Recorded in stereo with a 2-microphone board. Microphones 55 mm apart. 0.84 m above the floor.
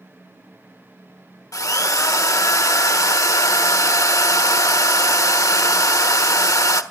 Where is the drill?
85° left, 1.2 m.